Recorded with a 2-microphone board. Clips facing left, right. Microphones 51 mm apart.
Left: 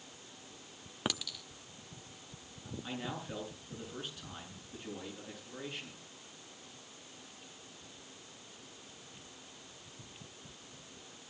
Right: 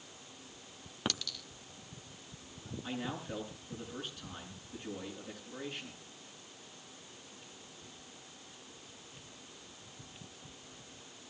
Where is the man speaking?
Centre (ahead or behind), 9.5 m.